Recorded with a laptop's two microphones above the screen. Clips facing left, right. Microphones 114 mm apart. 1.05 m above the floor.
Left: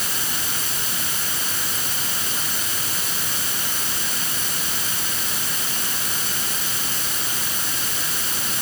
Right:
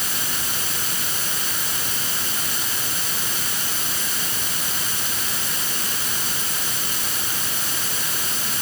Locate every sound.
Only background noise.